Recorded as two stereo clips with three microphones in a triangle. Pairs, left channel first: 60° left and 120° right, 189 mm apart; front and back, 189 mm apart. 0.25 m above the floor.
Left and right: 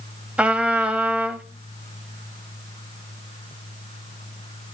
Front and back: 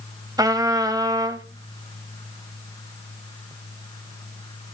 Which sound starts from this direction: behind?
A trumpet, at 0.4 s.